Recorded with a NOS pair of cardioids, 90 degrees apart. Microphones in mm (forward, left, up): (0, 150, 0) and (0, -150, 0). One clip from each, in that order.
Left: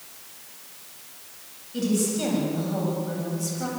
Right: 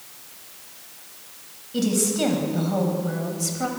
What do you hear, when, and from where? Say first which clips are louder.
1.7 s a woman speaking: right 3 dB; 40° right, 9.5 m; by 3.7 s 45° right, 8.5 m